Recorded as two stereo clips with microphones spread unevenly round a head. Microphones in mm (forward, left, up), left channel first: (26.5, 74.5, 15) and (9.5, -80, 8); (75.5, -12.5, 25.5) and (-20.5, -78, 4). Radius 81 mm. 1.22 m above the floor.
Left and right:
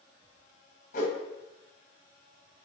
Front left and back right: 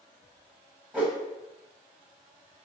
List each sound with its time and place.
0.9 s a whoosh: 130° left, 0.7 m